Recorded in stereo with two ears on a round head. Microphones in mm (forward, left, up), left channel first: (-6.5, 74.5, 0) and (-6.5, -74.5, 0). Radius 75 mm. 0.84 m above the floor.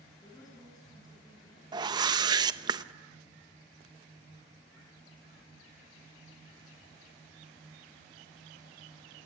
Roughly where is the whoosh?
Right.